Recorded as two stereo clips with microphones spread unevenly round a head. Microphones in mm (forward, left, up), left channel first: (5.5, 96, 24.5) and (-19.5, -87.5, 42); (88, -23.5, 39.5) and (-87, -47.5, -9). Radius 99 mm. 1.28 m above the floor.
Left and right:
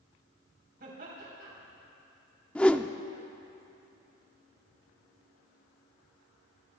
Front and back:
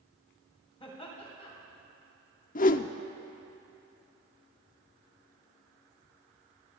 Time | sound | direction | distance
0.8 | laughter | 55° right | 4 m
2.5 | a whoosh | 15° left | 0.5 m